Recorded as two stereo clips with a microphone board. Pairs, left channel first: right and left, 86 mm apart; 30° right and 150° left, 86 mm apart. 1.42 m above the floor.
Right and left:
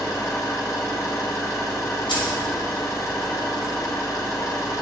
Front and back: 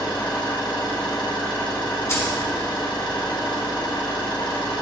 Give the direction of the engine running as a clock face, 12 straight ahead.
1 o'clock.